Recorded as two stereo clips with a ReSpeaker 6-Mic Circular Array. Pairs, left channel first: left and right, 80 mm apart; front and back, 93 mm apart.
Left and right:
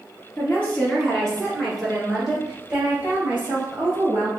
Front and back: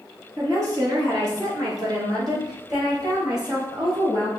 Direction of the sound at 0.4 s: 150° left.